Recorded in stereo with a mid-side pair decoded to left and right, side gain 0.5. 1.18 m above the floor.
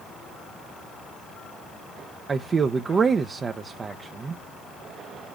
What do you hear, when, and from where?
2.3 s a man speaking: 35° right, 0.6 m